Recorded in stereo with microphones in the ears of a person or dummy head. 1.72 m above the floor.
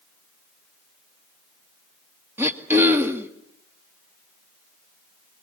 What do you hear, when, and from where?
2.4 s throat clearing: 15° right (ahead or behind), 2 m